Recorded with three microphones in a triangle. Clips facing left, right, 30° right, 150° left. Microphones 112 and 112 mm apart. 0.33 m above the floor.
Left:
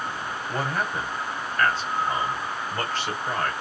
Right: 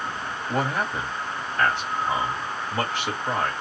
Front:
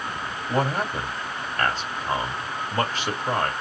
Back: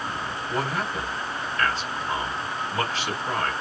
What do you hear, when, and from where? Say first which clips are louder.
0.5 s a man speaking: right 3 dB, front 4 dB; 20° right, 1.7 m